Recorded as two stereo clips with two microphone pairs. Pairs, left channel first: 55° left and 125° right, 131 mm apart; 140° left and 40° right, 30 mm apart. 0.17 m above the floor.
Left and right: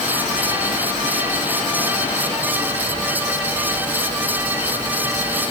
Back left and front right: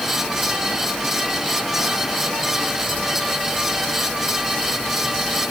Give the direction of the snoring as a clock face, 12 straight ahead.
I don't hear snoring.